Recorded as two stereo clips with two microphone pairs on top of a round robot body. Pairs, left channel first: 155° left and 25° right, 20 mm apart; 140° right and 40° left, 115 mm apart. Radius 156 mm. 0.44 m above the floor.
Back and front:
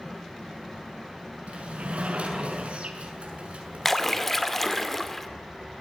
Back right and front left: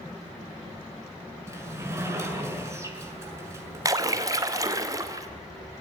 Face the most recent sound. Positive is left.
turn(degrees=80)